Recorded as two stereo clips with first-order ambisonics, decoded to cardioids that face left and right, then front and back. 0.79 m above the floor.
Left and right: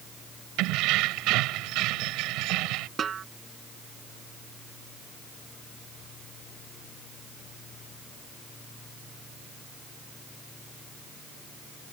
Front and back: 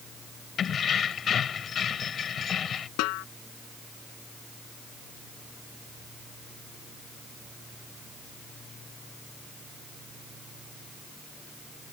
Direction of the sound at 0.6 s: 60° right.